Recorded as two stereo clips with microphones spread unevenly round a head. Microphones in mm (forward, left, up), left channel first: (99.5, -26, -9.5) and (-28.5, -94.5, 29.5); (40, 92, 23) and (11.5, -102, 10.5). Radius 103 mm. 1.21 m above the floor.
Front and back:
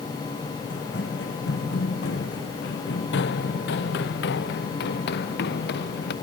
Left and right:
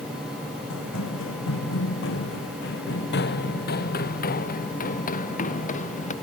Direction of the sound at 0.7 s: 75° left.